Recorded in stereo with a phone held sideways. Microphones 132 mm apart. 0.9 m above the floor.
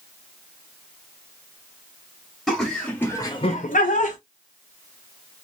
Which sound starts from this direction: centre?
Laughter, at 2.5 s.